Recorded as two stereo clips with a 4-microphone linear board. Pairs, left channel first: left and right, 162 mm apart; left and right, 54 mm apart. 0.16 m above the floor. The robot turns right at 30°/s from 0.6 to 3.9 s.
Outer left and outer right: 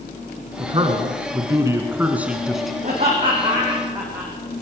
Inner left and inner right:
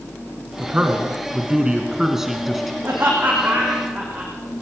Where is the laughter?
45° right (ahead or behind), 10 m; by 4.3 s 15° right (ahead or behind), 10 m.